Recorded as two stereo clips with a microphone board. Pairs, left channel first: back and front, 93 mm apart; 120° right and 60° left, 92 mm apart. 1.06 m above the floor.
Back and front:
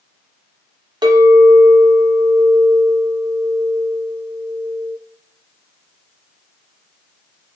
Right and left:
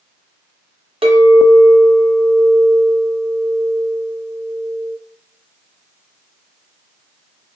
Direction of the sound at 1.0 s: 40° left.